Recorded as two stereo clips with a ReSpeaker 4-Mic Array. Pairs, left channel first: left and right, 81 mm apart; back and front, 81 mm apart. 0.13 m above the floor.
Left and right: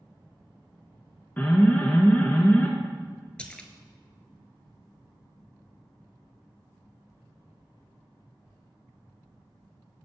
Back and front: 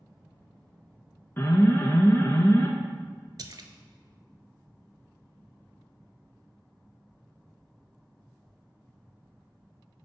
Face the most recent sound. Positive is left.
turn(degrees=15)